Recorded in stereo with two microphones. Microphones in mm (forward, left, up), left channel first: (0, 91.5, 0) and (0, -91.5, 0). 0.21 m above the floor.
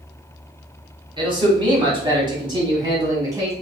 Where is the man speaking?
25° right (ahead or behind), 1.4 m; by 3.5 s 15° right (ahead or behind), 1.4 m.